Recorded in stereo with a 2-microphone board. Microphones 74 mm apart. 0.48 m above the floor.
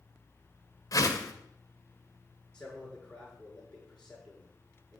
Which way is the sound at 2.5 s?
10° left (ahead or behind).